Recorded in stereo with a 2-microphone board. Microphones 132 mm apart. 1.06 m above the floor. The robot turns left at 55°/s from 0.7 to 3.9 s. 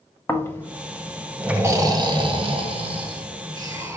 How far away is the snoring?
About 0.6 m.